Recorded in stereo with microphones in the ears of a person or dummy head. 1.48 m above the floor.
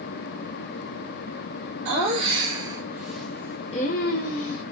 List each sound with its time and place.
1.9 s laughter: 35° right (ahead or behind), 1.6 m; by 4.6 s 75° left (ahead or behind), 1.1 m